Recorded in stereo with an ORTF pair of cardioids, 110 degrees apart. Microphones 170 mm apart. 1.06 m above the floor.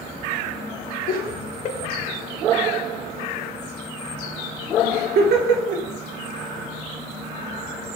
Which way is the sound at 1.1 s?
65° left.